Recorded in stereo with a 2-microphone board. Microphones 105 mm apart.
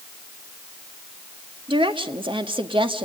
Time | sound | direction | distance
1.7 | a woman speaking | 55° right (ahead or behind) | 1.8 m